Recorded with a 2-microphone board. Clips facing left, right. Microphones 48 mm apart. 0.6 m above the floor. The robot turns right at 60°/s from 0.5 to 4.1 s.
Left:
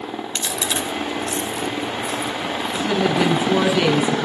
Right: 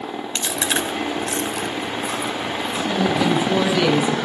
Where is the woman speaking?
100° left, 6.5 m; by 4.3 s 175° right, 6.5 m.